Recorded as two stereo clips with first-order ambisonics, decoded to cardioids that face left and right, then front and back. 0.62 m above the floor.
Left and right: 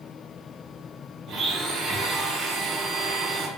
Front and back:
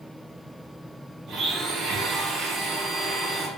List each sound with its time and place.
1.3 s a blender: 135° right, 0.7 m